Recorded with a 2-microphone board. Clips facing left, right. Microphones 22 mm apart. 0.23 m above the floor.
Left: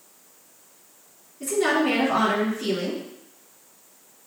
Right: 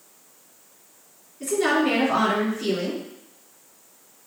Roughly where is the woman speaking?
Centre.